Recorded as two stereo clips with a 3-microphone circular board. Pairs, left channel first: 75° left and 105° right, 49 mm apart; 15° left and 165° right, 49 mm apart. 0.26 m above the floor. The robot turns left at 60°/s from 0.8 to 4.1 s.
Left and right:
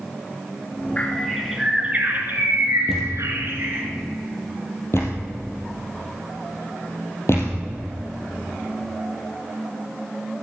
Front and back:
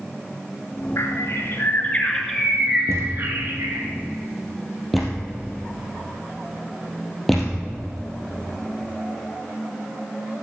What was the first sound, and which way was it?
A bird, 15° left.